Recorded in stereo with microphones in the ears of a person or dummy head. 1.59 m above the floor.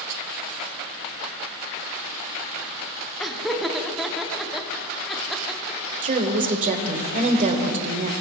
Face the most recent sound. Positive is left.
turn(degrees=-40)  # may be behind; listen again after turning